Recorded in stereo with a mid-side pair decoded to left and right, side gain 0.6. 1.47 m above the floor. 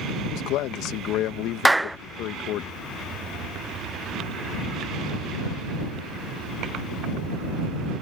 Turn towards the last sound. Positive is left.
turn(degrees=-5)